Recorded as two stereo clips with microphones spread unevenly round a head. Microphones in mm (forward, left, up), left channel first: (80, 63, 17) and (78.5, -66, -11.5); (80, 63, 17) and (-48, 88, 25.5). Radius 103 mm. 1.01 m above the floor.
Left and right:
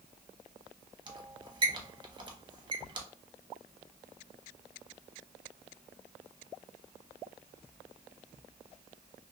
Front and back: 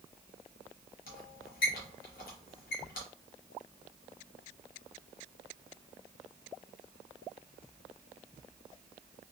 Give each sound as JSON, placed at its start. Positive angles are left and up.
{"t": 1.1, "sound": "a squeak", "azimuth_deg": -35, "distance_m": 0.8}